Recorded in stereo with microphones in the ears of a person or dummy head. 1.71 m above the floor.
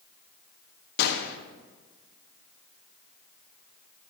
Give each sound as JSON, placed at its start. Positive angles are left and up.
{"t": 1.0, "sound": "a gunshot", "side_deg": 60, "distance_m": 1.2}